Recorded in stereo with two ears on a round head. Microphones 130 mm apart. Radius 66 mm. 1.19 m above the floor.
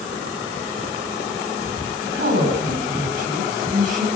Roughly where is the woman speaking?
Right.